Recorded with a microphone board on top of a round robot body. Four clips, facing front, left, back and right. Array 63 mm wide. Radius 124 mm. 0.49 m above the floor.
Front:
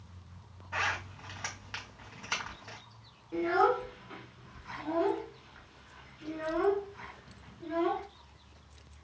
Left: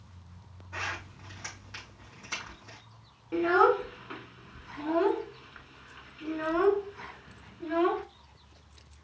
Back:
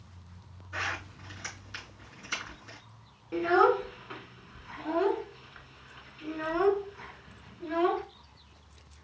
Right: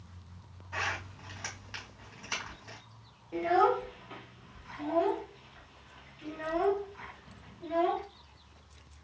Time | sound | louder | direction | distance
0.7 | a zipper | right 2 dB, front 2 dB | 15° right | 2.5 m
3.3 | a child speaking | left 3 dB, back 4 dB | 110° left | 1.4 m